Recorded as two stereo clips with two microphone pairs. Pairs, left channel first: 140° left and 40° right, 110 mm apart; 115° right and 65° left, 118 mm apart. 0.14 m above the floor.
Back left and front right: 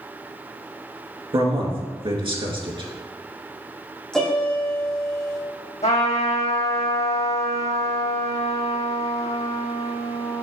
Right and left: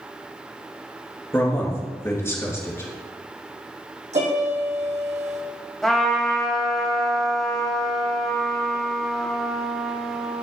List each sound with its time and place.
1.3 s a man speaking: 55° right, 2 m
4.1 s a piano: 55° left, 2.5 m
5.8 s a trumpet: 160° left, 2.5 m